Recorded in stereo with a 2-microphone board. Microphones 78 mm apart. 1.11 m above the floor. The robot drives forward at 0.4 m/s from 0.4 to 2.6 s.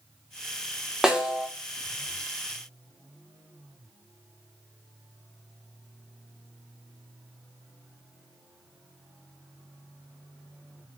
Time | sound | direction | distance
1.0 | a snare drum | 5° right (ahead or behind) | 0.6 m